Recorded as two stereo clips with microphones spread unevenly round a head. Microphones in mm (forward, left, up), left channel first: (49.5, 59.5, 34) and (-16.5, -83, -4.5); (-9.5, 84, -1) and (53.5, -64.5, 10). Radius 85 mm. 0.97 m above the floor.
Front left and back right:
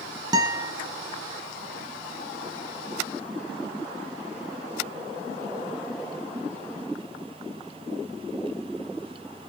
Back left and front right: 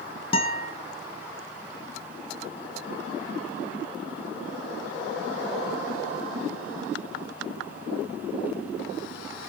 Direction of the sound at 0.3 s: 170° left.